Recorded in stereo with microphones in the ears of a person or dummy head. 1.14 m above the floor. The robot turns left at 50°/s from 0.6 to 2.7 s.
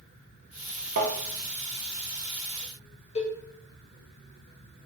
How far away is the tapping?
About 0.5 m.